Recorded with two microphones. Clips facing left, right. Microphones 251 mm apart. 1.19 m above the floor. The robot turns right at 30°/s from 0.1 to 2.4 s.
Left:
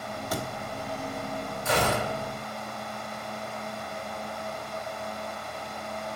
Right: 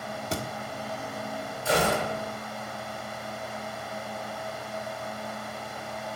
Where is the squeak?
I don't hear a squeak.